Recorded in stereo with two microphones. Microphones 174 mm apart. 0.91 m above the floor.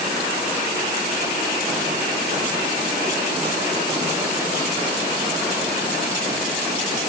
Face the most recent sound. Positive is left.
No sound to turn to.